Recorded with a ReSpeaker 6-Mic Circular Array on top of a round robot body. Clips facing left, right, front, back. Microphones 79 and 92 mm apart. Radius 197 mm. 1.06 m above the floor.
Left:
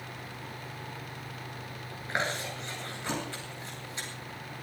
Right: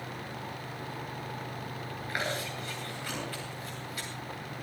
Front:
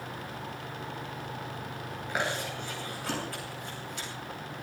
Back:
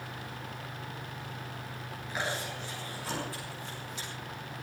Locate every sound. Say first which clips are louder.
2.1 s chewing: left 2 dB, front 3 dB; 25° left, 9 m